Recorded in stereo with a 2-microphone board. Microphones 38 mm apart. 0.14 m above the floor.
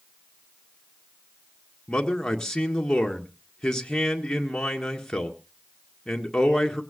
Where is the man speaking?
15° left (ahead or behind), 1.8 m.